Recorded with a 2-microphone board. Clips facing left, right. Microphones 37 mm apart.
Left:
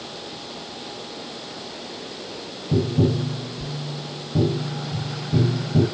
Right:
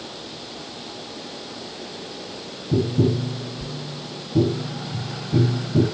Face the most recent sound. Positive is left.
turn(degrees=40)  # may be behind; listen again after turning